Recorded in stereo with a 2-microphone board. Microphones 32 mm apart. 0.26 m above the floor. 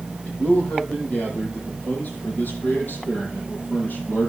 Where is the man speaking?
50° left (ahead or behind), 9.5 m; by 4.3 s 80° left, 8.5 m.